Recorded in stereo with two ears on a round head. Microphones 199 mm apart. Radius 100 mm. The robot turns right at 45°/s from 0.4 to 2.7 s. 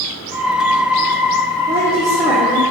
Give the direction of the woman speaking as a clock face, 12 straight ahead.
1 o'clock.